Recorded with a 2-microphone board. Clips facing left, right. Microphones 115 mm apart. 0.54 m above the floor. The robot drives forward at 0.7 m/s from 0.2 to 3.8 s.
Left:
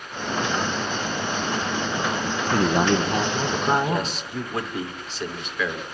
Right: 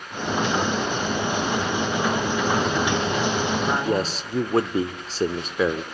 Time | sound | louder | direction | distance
2.5 | a man speaking | left 7 dB | 40° left (ahead or behind) | 1.1 m
3.8 | a man speaking | right 2 dB | 35° right (ahead or behind) | 1.4 m